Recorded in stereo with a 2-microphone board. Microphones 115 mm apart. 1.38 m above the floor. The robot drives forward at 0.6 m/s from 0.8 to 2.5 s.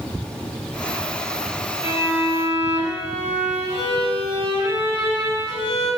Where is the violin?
10° right (ahead or behind), 2.5 m.